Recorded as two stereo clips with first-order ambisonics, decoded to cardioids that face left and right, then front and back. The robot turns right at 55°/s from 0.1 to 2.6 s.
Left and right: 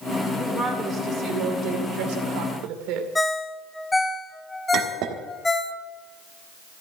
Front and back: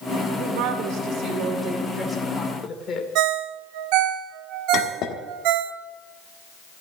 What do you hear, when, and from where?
0.3 s a woman speaking: 175° left, 2.5 m; by 3.0 s 65° right, 2.5 m
3.1 s a ringtone: 170° left, 0.7 m
4.7 s a clink: 50° right, 1.4 m